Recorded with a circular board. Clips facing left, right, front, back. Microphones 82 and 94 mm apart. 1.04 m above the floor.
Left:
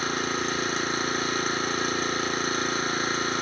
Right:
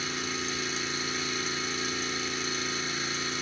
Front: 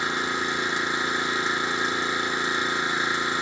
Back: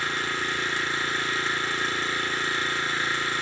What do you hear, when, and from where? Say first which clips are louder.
0.0 s an engine running: left 7 dB, front 2 dB; 70° left, 1.1 m